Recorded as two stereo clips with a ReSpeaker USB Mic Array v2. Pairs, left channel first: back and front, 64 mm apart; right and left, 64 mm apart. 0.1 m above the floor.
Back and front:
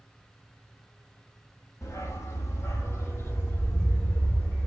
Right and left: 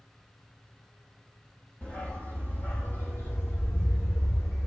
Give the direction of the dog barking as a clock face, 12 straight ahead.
5 o'clock.